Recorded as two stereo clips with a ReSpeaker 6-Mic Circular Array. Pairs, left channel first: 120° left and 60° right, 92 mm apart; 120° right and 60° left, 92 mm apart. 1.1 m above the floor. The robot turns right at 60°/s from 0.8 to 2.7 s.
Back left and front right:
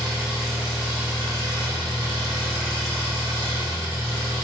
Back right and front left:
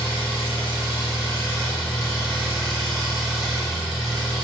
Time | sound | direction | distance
0.0 | an engine running | 140° right | 1.6 m